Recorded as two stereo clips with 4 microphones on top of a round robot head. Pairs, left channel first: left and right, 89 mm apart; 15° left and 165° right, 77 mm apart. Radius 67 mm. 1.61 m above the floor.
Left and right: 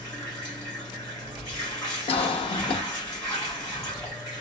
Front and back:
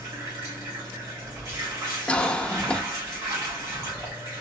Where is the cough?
90° left, 0.5 m.